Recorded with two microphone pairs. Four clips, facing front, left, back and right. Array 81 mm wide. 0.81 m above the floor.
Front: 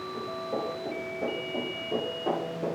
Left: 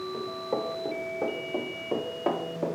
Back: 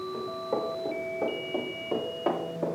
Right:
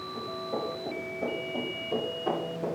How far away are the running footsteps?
About 6.5 m.